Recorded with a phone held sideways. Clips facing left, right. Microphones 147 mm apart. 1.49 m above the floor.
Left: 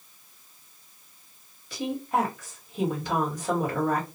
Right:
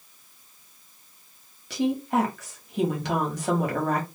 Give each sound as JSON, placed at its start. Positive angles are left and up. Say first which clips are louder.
{"t": 1.7, "sound": "a woman speaking", "louder": "right 4 dB", "side_deg": -80, "distance_m": 1.3}